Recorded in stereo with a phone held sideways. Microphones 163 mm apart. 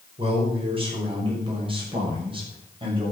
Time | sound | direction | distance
0.2 | a man speaking | 35° right (ahead or behind) | 5.5 m